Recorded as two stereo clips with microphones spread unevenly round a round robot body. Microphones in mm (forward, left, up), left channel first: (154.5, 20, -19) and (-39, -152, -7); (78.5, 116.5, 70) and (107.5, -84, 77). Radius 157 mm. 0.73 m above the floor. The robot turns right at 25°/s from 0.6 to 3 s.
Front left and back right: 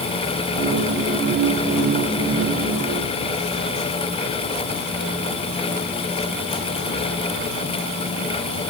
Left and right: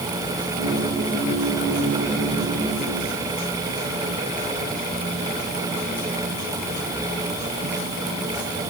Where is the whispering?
I don't hear whispering.